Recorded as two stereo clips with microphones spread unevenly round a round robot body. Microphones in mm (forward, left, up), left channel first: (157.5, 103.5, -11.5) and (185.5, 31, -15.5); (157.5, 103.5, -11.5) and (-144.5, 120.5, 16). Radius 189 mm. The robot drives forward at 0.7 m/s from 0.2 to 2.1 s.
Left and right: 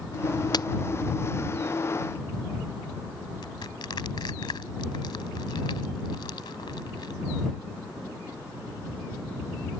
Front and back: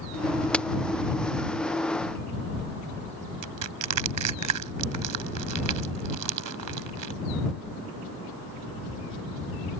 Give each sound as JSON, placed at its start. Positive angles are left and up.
{"t": 0.5, "sound": "a crack", "azimuth_deg": 85}
{"t": 3.4, "sound": "crushing", "azimuth_deg": 160}